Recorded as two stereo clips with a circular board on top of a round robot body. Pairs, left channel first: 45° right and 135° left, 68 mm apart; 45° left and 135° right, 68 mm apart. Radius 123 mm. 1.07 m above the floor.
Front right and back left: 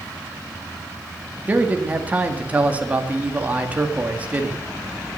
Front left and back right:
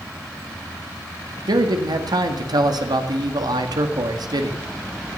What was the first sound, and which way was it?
A man speaking, 155° right.